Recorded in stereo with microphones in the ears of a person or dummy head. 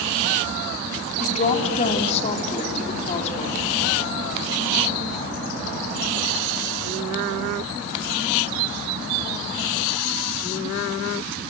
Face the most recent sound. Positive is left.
turn(degrees=45)  # may be behind; listen again after turning